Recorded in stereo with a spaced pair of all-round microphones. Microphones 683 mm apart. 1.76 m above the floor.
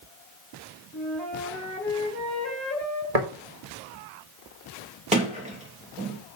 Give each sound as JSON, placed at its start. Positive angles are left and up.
{"t": 0.9, "sound": "a flute", "side_deg": 15, "distance_m": 3.0}
{"t": 3.1, "sound": "tapping", "side_deg": -60, "distance_m": 2.5}
{"t": 5.1, "sound": "a sliding door", "side_deg": -10, "distance_m": 2.5}